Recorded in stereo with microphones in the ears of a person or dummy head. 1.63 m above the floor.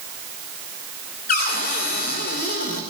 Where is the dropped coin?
No dropped coin in this recording.